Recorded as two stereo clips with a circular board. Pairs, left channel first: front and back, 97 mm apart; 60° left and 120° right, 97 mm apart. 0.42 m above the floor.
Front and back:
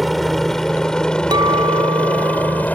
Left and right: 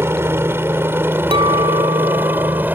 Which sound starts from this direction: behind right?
A clink, at 1.3 s.